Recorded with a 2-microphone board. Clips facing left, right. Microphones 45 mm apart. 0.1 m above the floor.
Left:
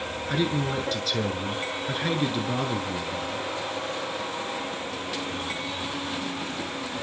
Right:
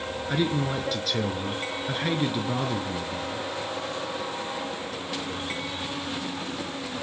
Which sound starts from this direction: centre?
A man speaking, at 0.3 s.